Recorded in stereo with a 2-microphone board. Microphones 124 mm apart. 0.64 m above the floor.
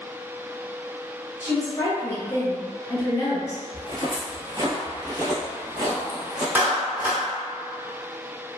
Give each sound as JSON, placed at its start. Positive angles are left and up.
{"t": 1.4, "sound": "a woman speaking", "side_deg": 25, "distance_m": 1.0}
{"t": 3.7, "sound": "footsteps", "side_deg": -35, "distance_m": 0.7}
{"t": 6.5, "sound": "a clap", "side_deg": -15, "distance_m": 0.7}